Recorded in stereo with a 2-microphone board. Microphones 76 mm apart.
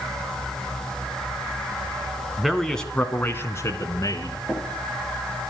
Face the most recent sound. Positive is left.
turn(degrees=5)  # may be behind; listen again after turning